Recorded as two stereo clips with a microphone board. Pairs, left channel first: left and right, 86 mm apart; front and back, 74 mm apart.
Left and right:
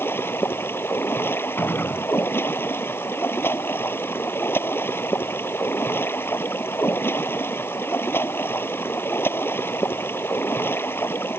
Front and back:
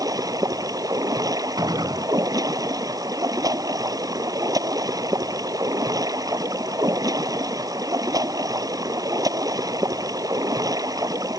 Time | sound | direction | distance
0.0 | running water | 150° left | ?
1.6 | a gunshot | 155° left | ?